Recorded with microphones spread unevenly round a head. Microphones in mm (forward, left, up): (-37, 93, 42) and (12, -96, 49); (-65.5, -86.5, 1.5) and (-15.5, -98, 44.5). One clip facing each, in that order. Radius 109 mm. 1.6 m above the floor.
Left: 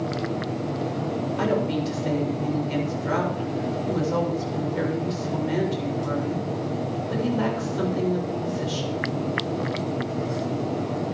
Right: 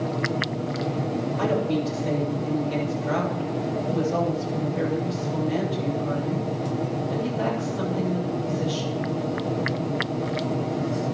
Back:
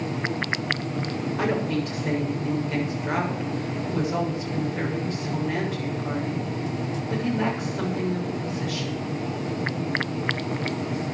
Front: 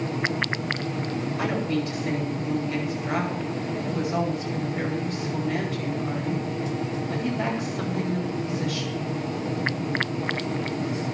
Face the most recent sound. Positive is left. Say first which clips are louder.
# even, back 2 dB
turn(degrees=130)